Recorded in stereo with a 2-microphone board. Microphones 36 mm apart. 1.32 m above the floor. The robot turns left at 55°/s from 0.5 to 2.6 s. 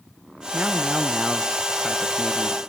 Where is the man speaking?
130° right, 0.8 m; by 2.6 s 120° left, 0.8 m.